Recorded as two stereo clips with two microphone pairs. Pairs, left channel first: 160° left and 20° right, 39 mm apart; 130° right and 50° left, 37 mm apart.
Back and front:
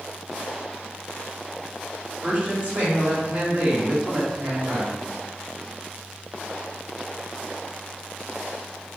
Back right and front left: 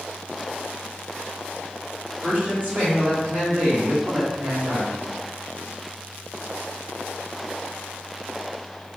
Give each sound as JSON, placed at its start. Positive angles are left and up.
{"t": 2.2, "sound": "a woman speaking", "azimuth_deg": 30, "distance_m": 1.5}